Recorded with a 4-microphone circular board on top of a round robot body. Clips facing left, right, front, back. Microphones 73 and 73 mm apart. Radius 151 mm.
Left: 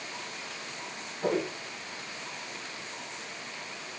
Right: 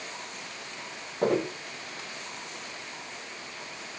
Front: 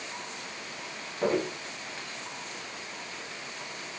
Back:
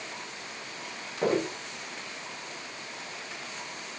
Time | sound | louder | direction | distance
1.2 | footsteps | right 3 dB, back 1 dB | 100° right | 8 m